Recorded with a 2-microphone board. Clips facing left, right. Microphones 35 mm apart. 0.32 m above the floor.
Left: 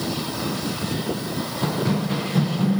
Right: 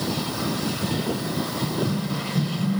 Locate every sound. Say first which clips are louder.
1.6 s running footsteps: left 6 dB; 65° left (ahead or behind), 2 m; by 2.8 s 50° left (ahead or behind), 2 m